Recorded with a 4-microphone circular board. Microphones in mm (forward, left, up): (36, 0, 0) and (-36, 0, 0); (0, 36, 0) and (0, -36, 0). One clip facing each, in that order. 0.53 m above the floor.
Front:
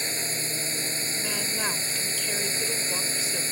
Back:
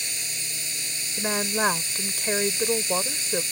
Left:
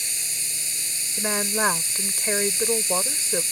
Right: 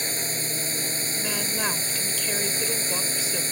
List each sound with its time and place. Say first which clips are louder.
0.0 s a drone: front 5 dB, right 7 dB; 50° right
1.2 s a woman speaking: back 9 dB, left 7 dB; 140° left